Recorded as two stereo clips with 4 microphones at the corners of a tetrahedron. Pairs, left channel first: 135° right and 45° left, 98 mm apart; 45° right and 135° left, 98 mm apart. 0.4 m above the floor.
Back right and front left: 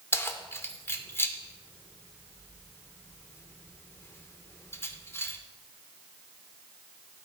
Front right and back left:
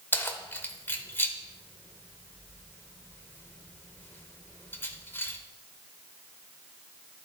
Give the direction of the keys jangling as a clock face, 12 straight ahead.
3 o'clock.